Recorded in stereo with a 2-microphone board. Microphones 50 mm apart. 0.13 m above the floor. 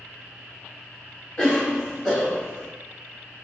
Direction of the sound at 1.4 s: 15° left (ahead or behind).